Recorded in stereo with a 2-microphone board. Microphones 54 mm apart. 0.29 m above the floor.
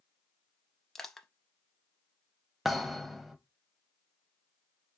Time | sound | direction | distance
0.9 | crushing | 10° left (ahead or behind) | 0.6 m
2.6 | a thud | centre (ahead or behind) | 0.6 m